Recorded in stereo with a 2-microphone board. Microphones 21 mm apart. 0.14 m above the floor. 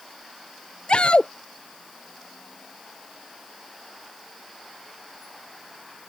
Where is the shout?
60° left (ahead or behind).